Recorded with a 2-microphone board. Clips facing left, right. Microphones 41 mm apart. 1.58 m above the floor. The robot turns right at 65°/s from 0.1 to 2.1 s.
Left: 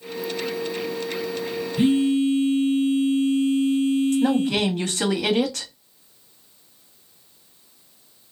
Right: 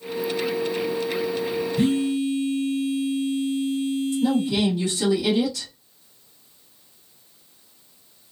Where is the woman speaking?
65° left (ahead or behind), 0.7 m.